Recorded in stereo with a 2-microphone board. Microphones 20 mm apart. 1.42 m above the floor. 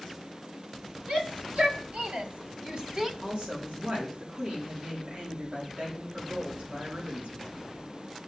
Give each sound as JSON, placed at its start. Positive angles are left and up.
{"t": 1.1, "sound": "a shout", "side_deg": -75, "distance_m": 4.0}
{"t": 3.2, "sound": "a woman speaking", "side_deg": -85, "distance_m": 4.0}